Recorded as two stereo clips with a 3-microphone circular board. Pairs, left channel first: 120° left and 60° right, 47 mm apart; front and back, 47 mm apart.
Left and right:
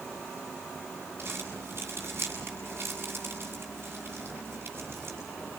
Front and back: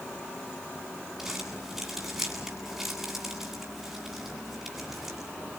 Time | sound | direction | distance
1.2 | crumpling | 100° right | 8.5 m